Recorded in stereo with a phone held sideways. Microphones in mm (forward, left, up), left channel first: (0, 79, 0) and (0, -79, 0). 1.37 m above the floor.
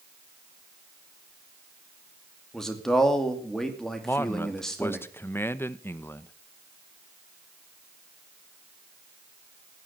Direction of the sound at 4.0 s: 15° left (ahead or behind).